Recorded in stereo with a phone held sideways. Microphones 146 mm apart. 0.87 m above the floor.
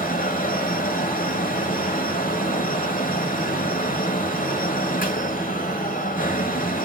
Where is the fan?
65° left (ahead or behind), 1.2 m.